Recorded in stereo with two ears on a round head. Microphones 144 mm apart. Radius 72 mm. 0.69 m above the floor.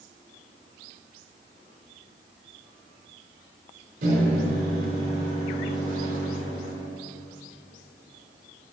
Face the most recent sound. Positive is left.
turn(degrees=-60)  # may be behind; listen again after turning